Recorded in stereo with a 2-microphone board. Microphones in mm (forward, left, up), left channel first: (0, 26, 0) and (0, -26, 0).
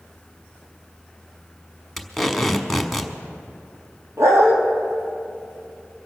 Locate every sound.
2.0 s tape being pulled: centre (ahead or behind), 1.1 m
4.2 s a dog barking: 80° right, 3 m